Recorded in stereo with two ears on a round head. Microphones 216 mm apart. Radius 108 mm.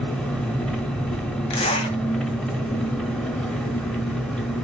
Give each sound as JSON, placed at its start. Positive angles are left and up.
{"t": 0.0, "sound": "an engine running", "side_deg": 5, "distance_m": 0.9}
{"t": 1.5, "sound": "a zipper", "side_deg": 25, "distance_m": 1.9}